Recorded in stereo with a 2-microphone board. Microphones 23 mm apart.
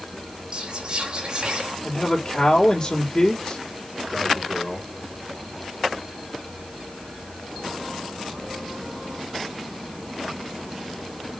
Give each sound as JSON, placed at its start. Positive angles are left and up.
{"t": 0.5, "sound": "whispering", "side_deg": -40, "distance_m": 4.5}
{"t": 1.8, "sound": "a man speaking", "side_deg": 45, "distance_m": 3.0}